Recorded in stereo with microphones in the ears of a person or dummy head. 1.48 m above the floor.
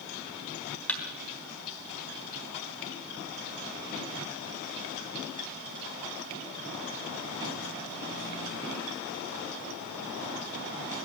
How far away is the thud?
About 3 m.